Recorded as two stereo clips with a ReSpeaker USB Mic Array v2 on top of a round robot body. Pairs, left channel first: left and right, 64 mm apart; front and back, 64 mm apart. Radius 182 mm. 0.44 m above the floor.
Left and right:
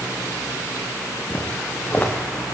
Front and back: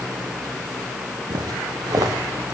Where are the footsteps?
160° left, 2.5 m.